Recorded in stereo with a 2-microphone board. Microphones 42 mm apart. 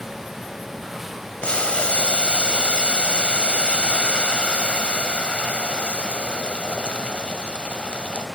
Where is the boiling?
30° left (ahead or behind), 0.9 m.